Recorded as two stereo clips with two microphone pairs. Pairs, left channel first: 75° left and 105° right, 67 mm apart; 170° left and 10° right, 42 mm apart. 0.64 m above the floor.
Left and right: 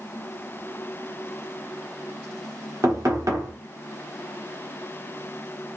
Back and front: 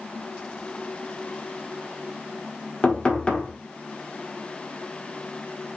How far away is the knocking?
About 1.3 m.